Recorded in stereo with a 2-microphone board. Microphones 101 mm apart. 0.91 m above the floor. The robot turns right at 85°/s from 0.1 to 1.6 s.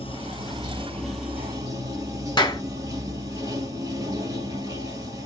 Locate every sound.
0.0 s running water: 90° left, 1.7 m; by 5.3 s 140° right, 1.7 m
2.4 s a clap: 45° left (ahead or behind), 0.8 m